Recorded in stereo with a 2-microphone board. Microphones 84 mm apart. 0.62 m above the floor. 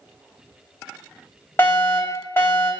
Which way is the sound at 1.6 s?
25° left (ahead or behind).